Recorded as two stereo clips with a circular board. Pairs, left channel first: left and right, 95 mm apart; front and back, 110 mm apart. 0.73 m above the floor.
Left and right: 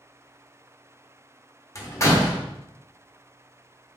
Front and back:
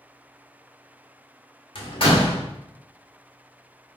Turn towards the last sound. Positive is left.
turn(degrees=35)